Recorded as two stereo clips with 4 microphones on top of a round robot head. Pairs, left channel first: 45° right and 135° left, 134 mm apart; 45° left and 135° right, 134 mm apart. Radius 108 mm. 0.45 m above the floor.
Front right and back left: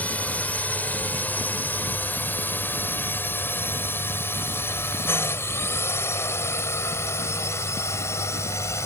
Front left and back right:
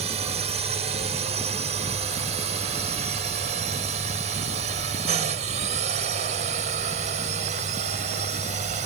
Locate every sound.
0.0 s a drone: 120° right; by 8.9 s 110° right